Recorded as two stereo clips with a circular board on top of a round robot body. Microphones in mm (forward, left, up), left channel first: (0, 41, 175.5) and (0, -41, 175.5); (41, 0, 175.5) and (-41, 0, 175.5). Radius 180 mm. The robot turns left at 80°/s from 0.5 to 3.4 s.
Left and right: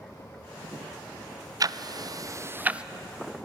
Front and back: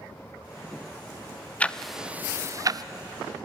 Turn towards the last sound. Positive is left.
turn(degrees=150)